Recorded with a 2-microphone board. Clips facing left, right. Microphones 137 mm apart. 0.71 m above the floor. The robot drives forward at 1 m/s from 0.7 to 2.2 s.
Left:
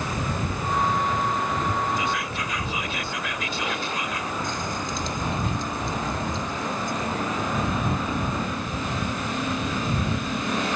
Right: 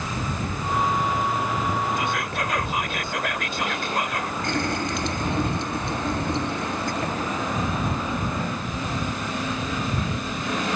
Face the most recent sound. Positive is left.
turn(degrees=-80)